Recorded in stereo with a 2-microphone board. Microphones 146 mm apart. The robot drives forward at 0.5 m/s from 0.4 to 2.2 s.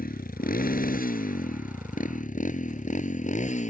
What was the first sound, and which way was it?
A motorcycle, 85° left.